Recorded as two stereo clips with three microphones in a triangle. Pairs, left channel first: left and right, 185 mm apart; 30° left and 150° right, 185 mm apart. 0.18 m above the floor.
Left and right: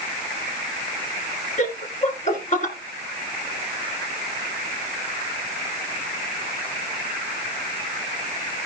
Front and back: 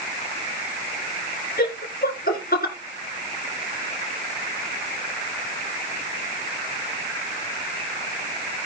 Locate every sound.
1.6 s laughter: 50° left, 2 m